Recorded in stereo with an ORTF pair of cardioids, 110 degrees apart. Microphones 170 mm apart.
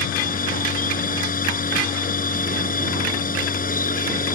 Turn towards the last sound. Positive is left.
turn(degrees=55)